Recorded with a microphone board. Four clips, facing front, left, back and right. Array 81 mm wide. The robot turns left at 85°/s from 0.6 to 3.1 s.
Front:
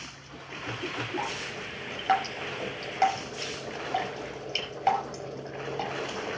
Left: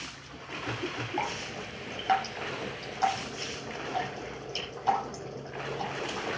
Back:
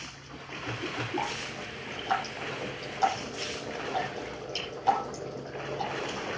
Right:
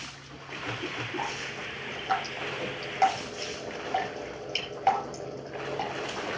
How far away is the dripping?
About 5 m.